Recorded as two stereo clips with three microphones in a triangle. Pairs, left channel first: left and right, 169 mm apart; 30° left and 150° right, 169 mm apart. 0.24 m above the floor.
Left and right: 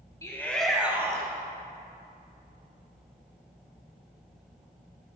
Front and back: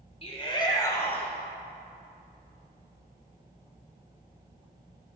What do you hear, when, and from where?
0.2 s a shout: 35° left, 1.4 m; by 1.3 s 45° right, 1.4 m